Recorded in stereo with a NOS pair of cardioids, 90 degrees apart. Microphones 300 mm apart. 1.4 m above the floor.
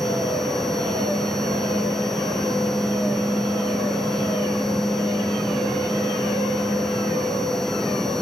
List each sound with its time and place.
0.0 s a machine running: straight ahead